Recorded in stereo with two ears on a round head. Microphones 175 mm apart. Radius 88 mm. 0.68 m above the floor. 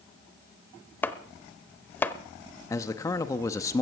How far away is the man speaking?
About 0.8 m.